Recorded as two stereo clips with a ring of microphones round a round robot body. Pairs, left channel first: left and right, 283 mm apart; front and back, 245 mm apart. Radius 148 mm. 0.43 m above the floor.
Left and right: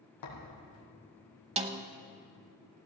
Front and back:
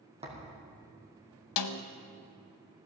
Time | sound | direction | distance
0.2 | a thud | 115° left | 3.5 m
1.6 | a snare drum | 20° right | 0.6 m